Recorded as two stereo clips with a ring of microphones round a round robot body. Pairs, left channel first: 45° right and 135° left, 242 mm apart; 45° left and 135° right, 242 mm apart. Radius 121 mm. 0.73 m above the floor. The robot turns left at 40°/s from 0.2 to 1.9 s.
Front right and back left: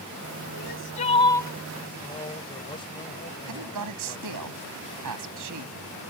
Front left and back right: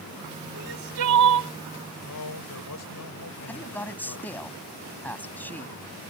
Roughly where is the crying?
Right.